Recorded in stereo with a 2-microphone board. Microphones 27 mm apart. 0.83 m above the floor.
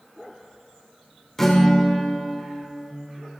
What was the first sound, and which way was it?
A guitar, 10° left (ahead or behind).